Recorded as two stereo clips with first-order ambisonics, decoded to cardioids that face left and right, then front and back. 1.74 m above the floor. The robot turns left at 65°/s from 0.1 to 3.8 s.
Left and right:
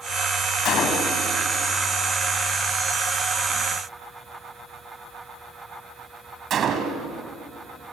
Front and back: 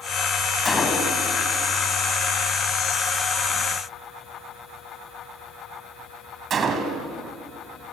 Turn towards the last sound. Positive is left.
turn(degrees=-135)